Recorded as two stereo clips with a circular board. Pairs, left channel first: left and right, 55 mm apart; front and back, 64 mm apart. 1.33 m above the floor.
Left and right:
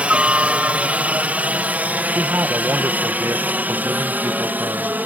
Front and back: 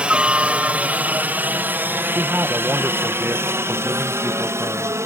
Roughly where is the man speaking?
Behind right.